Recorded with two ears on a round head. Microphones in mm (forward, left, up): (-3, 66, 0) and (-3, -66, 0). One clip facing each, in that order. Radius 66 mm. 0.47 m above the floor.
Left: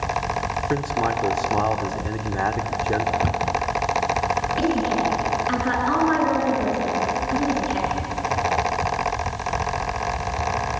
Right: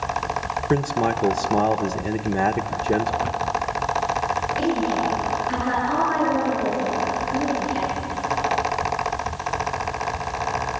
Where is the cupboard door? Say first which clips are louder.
Left 1 dB; 50° left (ahead or behind), 1.2 m.